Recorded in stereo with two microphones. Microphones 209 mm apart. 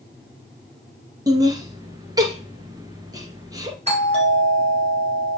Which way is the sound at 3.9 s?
30° right (ahead or behind).